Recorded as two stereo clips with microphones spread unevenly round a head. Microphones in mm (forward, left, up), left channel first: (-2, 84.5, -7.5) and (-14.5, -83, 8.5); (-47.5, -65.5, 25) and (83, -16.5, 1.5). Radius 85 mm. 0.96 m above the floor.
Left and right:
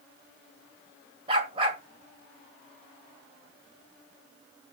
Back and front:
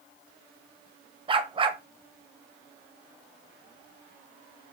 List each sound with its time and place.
1.3 s a dog barking: 35° right, 2 m